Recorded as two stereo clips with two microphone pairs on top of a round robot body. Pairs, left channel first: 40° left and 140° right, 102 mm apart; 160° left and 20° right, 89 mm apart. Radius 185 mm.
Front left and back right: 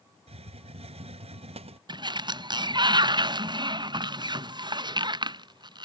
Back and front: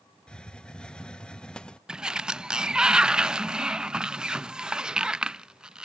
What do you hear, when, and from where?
0.3 s a hiss: 115° right
1.9 s a sliding door: 95° right